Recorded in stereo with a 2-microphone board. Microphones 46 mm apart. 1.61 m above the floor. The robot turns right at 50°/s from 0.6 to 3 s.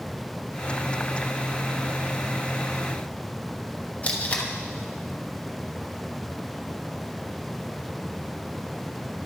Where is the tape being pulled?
30° left (ahead or behind), 1.0 m.